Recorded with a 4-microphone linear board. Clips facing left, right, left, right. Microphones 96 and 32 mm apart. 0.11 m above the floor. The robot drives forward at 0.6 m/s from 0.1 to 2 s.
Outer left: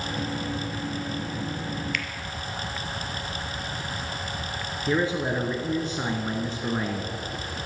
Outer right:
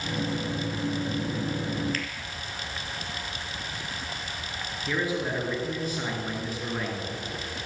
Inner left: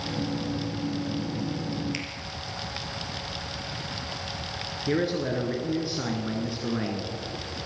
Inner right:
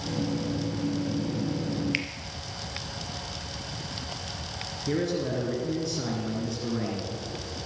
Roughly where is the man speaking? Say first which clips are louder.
Outer left 4 dB, inner left 2 dB; left.